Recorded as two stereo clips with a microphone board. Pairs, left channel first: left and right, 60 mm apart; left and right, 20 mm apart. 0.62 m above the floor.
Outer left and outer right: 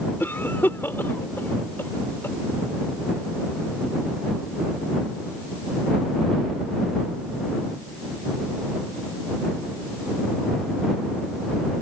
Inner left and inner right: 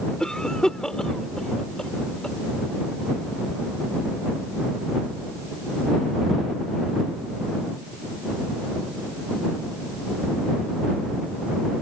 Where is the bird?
No bird in this recording.